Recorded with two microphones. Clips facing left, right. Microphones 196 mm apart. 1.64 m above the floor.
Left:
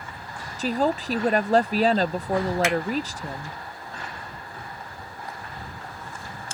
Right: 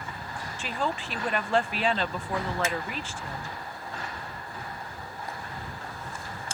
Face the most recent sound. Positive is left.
turn(degrees=85)